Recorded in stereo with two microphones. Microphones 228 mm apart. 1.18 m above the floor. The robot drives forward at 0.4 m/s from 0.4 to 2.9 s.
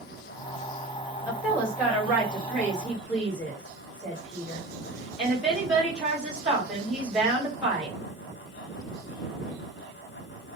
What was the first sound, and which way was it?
A woman speaking, 10° right (ahead or behind).